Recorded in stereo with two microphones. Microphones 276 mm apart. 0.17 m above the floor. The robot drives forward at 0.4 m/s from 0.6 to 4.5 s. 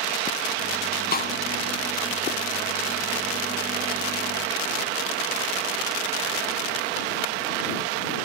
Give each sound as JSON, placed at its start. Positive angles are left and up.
{"t": 1.1, "sound": "a snare drum", "side_deg": 35, "distance_m": 0.5}